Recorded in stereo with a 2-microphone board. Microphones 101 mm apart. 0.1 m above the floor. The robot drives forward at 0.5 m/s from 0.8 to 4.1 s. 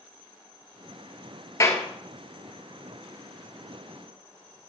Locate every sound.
1.6 s a clap: 30° left (ahead or behind), 1.7 m